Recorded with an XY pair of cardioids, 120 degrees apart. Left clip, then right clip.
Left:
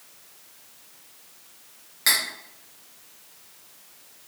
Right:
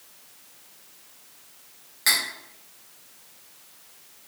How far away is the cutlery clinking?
About 1.1 m.